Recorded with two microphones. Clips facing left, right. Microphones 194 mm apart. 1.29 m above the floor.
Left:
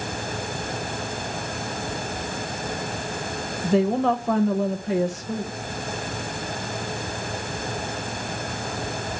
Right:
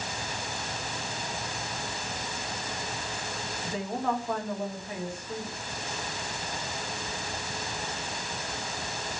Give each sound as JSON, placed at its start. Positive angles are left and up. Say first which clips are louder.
{"t": 3.6, "sound": "a woman speaking", "louder": "left 12 dB", "side_deg": 80, "distance_m": 1.0}